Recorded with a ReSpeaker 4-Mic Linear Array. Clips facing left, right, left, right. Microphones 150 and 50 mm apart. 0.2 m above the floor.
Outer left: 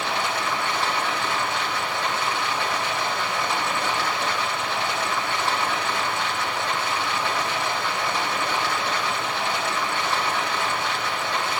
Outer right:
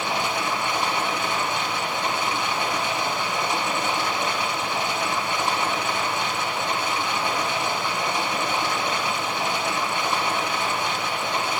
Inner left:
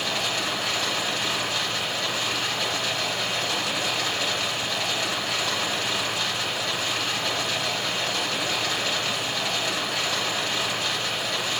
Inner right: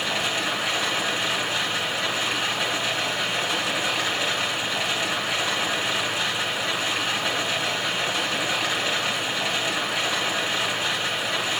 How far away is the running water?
About 3 m.